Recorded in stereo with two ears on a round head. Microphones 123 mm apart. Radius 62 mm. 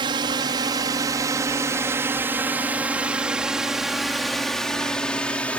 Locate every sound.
0.0 s a drone: 35° right (ahead or behind); by 5.6 s 10° left (ahead or behind)